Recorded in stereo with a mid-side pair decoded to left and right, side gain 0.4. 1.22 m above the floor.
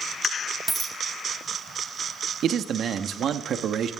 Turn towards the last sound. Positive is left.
turn(degrees=-65)